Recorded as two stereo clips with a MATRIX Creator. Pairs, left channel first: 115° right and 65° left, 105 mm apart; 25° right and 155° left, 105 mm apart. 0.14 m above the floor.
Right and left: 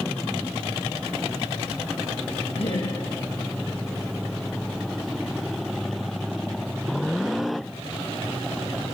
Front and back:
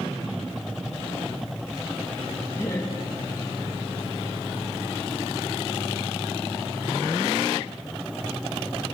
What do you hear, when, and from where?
2.5 s laughter: 85° right, 6.5 m